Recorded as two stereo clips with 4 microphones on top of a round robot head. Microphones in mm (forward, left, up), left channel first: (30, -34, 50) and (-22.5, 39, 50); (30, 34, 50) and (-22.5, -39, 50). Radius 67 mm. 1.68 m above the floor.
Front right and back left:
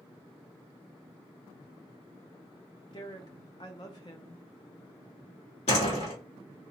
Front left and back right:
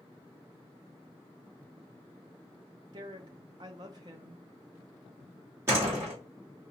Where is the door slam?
65° right, 2.5 m.